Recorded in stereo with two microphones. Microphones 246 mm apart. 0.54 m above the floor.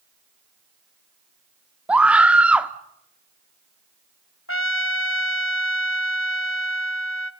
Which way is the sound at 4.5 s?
60° left (ahead or behind).